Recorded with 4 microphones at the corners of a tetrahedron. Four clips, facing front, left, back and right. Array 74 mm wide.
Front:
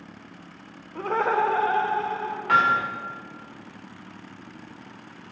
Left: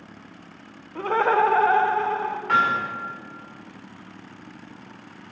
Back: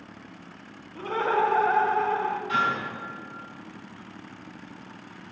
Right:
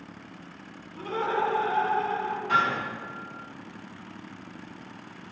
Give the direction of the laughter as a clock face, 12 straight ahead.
10 o'clock.